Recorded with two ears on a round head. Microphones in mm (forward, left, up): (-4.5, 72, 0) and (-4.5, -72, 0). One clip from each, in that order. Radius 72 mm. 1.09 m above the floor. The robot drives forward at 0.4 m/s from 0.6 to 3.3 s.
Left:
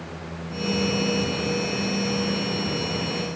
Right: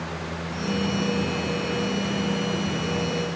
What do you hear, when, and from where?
Only background noise.